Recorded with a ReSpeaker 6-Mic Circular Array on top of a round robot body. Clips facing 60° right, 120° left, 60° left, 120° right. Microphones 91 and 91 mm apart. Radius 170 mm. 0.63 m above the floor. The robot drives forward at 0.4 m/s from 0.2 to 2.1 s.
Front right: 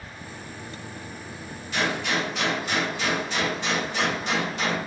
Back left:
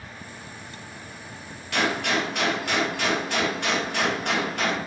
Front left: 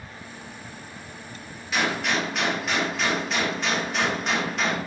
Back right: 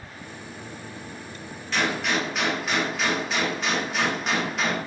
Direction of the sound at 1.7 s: 145° left.